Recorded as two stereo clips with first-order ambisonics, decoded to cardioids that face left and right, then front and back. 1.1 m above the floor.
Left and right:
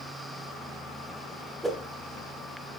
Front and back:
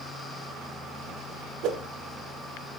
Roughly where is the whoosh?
Behind.